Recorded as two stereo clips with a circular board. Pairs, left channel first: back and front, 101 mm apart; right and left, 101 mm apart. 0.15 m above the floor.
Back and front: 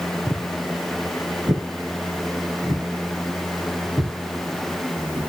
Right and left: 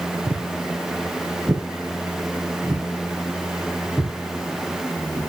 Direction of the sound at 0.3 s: 50° left.